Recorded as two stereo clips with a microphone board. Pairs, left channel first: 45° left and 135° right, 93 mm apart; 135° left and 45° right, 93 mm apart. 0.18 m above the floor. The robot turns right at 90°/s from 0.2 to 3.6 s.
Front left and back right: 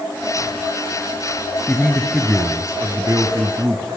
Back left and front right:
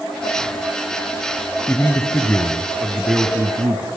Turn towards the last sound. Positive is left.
turn(degrees=-85)